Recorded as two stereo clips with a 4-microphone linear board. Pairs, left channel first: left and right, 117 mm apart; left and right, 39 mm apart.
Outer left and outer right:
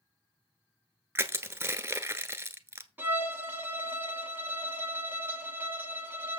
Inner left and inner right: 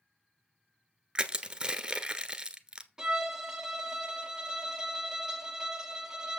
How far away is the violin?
About 1.5 m.